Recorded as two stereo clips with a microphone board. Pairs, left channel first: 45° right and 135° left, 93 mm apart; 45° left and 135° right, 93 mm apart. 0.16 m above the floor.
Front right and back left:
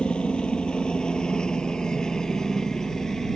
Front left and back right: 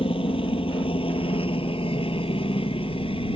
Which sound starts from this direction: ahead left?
A helicopter, at 0.0 s.